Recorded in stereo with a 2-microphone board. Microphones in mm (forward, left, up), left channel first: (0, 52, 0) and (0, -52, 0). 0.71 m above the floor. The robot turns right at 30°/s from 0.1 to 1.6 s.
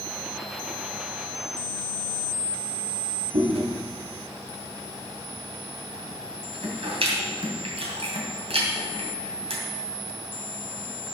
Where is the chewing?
70° right (ahead or behind), 2.5 m.